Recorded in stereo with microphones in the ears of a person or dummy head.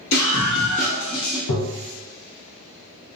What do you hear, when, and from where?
0.1 s a scream: 50° left (ahead or behind), 1.1 m; by 1.4 s 15° left (ahead or behind), 0.8 m
1.5 s tapping: 65° left (ahead or behind), 0.6 m